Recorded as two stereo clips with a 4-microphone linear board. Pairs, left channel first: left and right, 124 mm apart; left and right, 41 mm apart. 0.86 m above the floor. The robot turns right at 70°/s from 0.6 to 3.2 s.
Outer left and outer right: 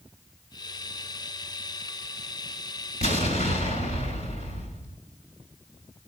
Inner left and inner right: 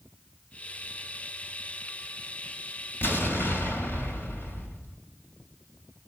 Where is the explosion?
75° left (ahead or behind), 3 m.